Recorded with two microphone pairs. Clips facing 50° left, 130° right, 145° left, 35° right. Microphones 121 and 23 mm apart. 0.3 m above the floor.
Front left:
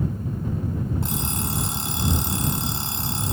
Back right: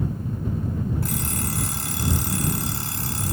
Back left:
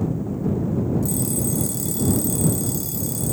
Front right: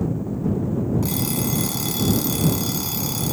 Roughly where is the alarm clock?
Ahead.